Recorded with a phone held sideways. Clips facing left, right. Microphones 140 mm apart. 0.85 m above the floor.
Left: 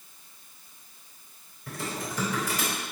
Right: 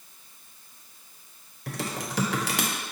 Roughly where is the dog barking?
I don't hear a dog barking.